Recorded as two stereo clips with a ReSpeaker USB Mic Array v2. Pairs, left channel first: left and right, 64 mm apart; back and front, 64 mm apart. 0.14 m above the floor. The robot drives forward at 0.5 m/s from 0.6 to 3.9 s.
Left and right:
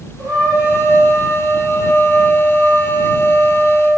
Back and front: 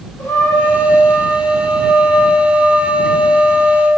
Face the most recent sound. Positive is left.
turn(degrees=-145)